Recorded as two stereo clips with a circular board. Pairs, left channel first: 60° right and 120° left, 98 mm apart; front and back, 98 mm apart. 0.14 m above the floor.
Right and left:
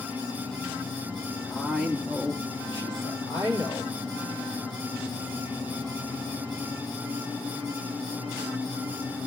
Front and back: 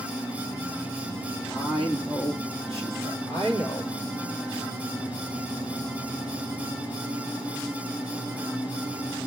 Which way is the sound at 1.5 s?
150° right.